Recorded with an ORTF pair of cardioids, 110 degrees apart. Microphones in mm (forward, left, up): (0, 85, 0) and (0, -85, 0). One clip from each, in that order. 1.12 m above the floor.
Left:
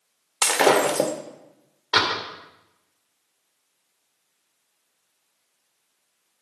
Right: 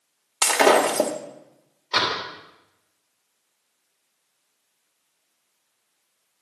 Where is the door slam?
25° left, 3.5 m.